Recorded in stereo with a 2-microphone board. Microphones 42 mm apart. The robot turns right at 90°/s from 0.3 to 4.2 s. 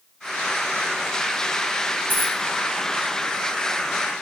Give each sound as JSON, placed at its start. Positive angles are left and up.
{"t": 2.1, "sound": "a dropped coin", "side_deg": -45, "distance_m": 1.4}